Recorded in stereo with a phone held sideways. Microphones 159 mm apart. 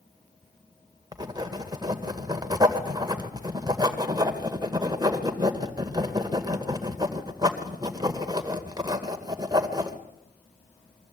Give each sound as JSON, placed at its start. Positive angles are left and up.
{"t": 1.1, "sound": "writing", "side_deg": -25, "distance_m": 2.0}